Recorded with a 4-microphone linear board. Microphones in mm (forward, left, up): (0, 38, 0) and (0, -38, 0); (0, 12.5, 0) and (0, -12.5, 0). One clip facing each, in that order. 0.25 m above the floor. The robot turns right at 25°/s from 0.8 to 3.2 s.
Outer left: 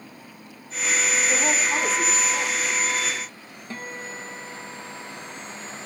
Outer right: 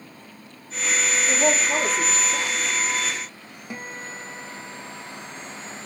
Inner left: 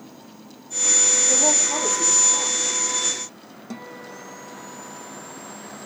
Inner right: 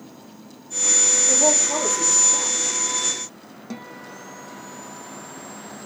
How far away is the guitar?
About 1.6 m.